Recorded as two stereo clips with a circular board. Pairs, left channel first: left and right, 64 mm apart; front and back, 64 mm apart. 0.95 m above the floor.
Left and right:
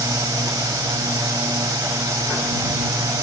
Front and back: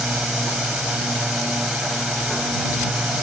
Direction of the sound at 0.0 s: 100° right.